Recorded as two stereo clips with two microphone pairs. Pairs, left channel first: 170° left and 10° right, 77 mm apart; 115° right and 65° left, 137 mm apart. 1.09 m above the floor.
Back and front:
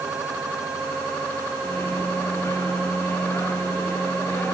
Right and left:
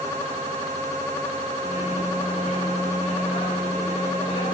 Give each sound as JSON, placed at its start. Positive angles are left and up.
{"t": 1.6, "sound": "a microwave", "azimuth_deg": -135, "distance_m": 1.6}